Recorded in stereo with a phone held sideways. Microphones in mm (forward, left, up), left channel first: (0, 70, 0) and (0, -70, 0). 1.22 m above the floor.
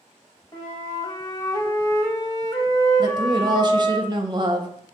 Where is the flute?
30° left (ahead or behind), 1.1 m.